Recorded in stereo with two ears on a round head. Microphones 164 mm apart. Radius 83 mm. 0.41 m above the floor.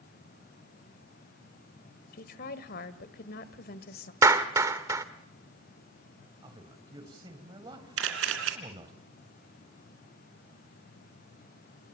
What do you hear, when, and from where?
2.1 s a woman speaking: 55° left (ahead or behind), 1.6 m
4.2 s a clap: 15° right (ahead or behind), 1.0 m
6.4 s a man speaking: 25° right (ahead or behind), 2.5 m
8.0 s a camera shutter: 80° right, 3 m